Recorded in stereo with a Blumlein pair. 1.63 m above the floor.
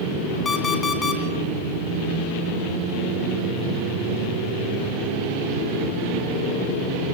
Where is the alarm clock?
15° left, 2 m.